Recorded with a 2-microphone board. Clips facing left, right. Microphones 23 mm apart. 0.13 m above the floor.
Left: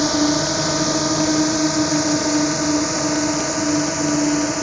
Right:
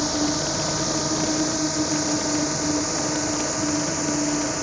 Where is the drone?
25° left (ahead or behind); by 4.6 s 15° left (ahead or behind).